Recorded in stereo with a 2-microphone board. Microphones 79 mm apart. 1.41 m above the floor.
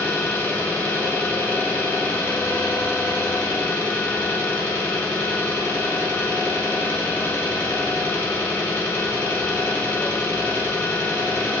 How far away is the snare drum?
I don't hear a snare drum.